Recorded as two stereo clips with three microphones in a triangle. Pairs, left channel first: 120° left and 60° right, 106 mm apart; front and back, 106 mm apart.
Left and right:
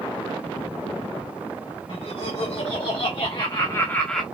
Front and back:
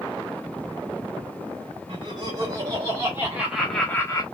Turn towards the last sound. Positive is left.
turn(degrees=30)